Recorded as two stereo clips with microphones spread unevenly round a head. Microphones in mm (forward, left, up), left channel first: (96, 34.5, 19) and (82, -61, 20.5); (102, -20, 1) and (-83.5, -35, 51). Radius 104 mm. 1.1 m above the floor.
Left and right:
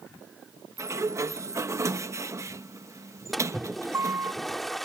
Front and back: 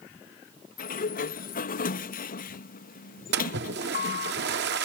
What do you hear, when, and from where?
0.8 s a sliding door: 40° right
3.3 s a splash: 170° left